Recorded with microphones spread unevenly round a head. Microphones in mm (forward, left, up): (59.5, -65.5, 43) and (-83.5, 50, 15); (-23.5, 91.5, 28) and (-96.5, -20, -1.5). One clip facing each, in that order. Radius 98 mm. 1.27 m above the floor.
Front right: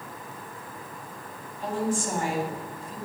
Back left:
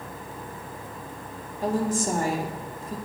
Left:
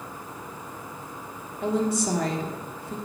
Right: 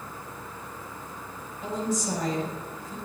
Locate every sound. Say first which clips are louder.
1.6 s a woman speaking: back left 3 dB, left 5 dB; 85° left, 2.5 m